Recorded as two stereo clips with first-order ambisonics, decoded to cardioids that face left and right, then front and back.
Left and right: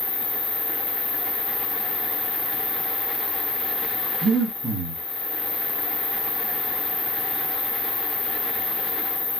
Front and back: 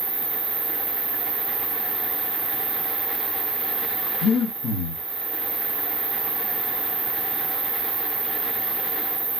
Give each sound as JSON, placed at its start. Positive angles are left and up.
{"t": 0.0, "sound": "an insect", "azimuth_deg": 135, "distance_m": 1.0}
{"t": 4.2, "sound": "breathing", "azimuth_deg": -30, "distance_m": 1.5}